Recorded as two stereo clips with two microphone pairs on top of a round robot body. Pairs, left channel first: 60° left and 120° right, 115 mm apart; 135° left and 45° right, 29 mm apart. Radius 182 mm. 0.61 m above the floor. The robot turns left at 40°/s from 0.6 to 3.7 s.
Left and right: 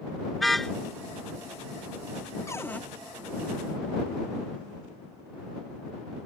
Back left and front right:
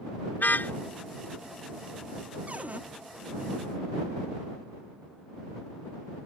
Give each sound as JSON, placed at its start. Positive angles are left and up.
{"t": 0.4, "sound": "a car horn", "azimuth_deg": 150}
{"t": 2.5, "sound": "a cupboard door", "azimuth_deg": -5}